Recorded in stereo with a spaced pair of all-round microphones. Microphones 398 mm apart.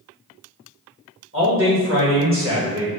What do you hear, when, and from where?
1.3 s a man speaking: 35° right (ahead or behind), 1.7 m